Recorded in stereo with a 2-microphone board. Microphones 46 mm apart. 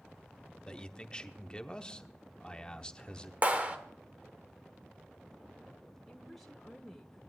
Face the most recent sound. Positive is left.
turn(degrees=5)  # may be behind; listen again after turning